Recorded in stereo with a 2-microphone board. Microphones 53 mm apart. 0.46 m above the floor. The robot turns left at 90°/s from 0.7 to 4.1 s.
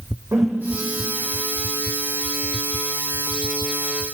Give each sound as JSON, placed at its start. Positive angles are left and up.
{"t": 0.3, "sound": "a whoosh", "side_deg": -70, "distance_m": 6.5}